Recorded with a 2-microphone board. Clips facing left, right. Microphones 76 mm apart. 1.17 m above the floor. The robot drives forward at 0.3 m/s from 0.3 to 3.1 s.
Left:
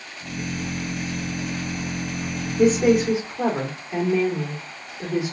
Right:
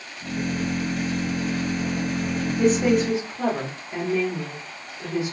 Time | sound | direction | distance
2.6 | a woman speaking | 20° left (ahead or behind) | 1.1 m